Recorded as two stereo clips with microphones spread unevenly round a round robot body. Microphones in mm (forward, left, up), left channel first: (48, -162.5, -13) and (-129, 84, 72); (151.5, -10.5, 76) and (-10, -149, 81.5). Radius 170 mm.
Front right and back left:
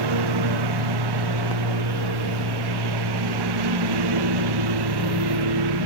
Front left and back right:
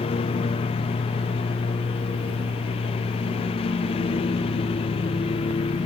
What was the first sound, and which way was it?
A lawn mower, 110° left.